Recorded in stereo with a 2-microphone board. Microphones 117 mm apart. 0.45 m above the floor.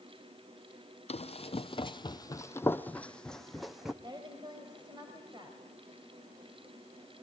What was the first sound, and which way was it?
Running footsteps, 65° left (ahead or behind).